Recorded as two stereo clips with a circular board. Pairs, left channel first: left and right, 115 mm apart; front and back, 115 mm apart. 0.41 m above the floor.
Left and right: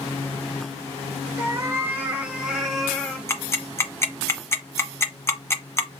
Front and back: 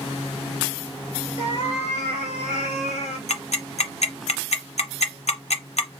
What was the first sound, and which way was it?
A cat meowing, 25° right.